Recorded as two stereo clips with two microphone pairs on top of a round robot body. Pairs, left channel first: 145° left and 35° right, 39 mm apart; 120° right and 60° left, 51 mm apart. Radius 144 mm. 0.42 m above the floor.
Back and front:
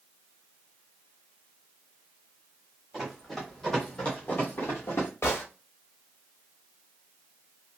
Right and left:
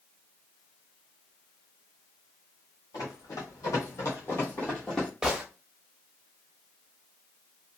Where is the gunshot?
145° left, 0.6 m.